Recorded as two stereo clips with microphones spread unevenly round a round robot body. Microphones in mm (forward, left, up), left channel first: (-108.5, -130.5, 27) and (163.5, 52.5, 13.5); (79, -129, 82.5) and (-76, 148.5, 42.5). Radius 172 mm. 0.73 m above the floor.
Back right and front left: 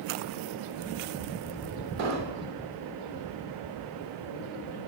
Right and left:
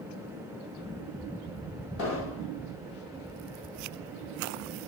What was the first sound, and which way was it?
An explosion, 10° right.